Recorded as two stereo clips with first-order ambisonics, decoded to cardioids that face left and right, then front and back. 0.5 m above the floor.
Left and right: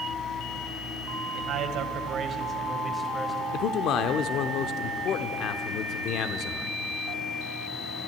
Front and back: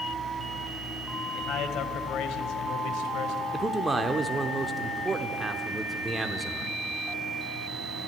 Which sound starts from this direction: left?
A man speaking, at 3.5 s.